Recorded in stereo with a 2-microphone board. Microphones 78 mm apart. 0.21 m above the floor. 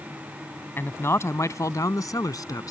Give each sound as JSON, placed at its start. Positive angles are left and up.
{"t": 0.8, "sound": "a man speaking", "side_deg": 30}